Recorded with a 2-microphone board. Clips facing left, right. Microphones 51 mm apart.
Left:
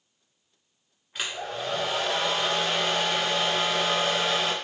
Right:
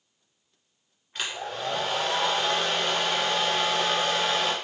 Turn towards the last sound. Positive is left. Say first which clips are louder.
# even
turn(degrees=5)  # may be behind; listen again after turning